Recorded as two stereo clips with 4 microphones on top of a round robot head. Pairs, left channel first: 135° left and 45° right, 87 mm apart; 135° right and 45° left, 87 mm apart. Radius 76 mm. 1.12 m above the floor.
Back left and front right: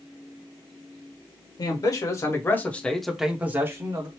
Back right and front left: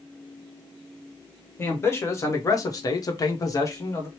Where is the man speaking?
165° left, 1.4 m; by 4.1 s 85° right, 1.1 m.